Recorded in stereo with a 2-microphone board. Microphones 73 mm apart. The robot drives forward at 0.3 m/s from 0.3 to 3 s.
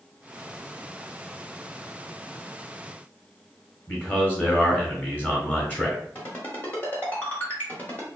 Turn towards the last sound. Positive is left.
turn(degrees=25)  # may be behind; listen again after turning